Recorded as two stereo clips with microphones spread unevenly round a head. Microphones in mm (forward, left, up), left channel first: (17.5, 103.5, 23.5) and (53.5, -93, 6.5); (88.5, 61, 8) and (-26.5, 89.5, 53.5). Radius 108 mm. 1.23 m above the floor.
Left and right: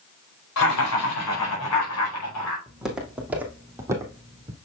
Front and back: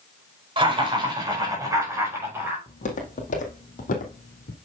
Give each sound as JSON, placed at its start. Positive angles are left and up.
{"t": 0.6, "sound": "laughter", "azimuth_deg": 120, "distance_m": 4.5}
{"t": 2.7, "sound": "footsteps", "azimuth_deg": 10, "distance_m": 3.0}